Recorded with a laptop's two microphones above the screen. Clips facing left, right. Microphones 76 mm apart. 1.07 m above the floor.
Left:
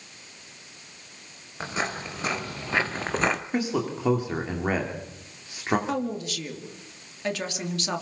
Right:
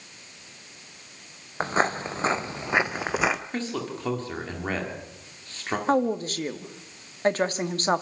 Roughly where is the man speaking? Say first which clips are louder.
Left 4 dB; centre.